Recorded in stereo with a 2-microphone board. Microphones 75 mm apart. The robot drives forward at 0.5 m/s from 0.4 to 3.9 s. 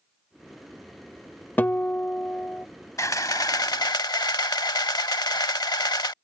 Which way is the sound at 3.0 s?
45° left (ahead or behind).